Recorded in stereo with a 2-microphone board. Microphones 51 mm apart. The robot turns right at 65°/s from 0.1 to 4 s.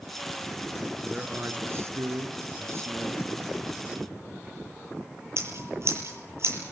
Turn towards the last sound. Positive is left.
turn(degrees=-55)  # may be behind; listen again after turning